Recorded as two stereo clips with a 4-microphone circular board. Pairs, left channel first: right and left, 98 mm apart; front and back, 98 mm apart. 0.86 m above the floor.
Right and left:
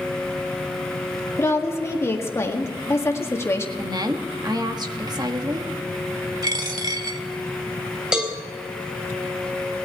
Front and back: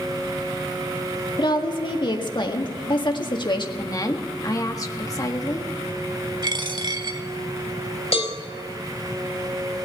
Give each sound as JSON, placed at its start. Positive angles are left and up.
{"t": 1.4, "sound": "a woman speaking", "azimuth_deg": -30, "distance_m": 1.8}
{"t": 3.8, "sound": "a woman speaking", "azimuth_deg": 50, "distance_m": 1.3}
{"t": 6.4, "sound": "a dropped coin", "azimuth_deg": 140, "distance_m": 1.3}
{"t": 8.1, "sound": "a cowbell", "azimuth_deg": 10, "distance_m": 3.5}